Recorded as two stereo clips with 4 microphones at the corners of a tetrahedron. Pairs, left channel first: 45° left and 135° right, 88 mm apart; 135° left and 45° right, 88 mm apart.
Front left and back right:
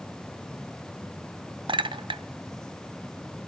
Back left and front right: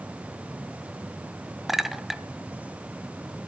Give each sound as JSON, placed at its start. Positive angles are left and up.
{"t": 1.7, "sound": "a clink", "azimuth_deg": -130, "distance_m": 0.5}